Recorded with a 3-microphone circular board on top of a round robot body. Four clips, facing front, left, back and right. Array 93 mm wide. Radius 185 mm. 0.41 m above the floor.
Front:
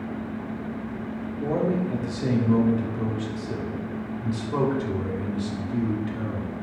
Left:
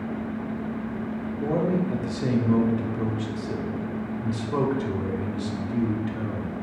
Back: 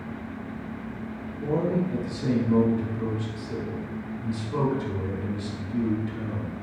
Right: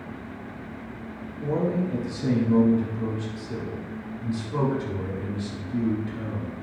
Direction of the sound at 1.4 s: 60° left.